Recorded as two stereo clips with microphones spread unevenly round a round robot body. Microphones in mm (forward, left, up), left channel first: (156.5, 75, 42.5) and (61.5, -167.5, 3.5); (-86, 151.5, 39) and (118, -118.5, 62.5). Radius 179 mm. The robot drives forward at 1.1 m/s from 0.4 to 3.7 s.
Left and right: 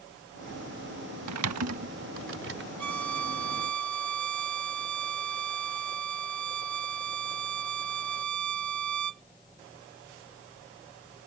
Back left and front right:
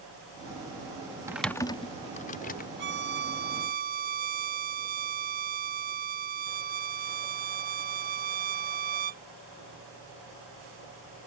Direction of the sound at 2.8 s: 110° right.